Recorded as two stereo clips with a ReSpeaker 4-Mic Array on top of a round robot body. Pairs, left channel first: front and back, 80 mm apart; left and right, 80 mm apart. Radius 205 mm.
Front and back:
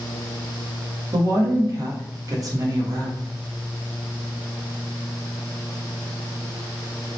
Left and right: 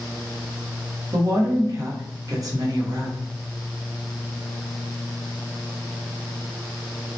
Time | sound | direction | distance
1.1 | a woman speaking | 140° right | 0.9 m